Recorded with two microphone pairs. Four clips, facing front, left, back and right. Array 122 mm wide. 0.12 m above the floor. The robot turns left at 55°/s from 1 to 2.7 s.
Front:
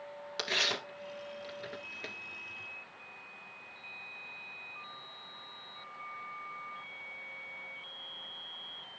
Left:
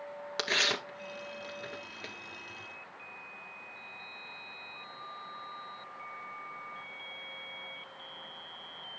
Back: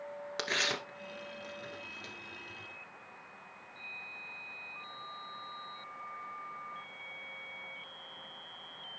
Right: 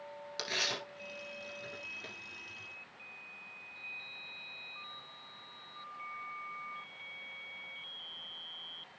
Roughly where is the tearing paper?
Left.